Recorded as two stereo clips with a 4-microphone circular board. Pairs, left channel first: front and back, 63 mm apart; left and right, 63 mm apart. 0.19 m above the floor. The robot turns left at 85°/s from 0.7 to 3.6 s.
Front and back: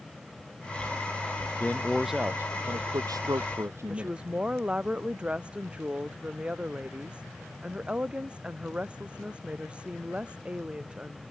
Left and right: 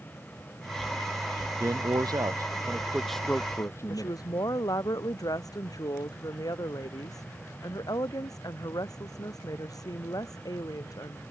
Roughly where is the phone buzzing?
I don't hear a phone buzzing.